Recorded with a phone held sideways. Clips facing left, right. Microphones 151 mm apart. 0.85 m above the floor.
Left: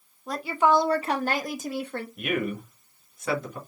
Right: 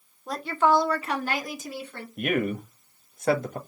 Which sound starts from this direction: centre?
A woman speaking, at 0.3 s.